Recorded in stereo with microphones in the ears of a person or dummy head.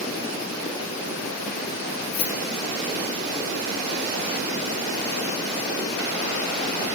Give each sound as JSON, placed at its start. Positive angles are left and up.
{"t": 2.1, "sound": "keys jangling", "side_deg": 65, "distance_m": 1.8}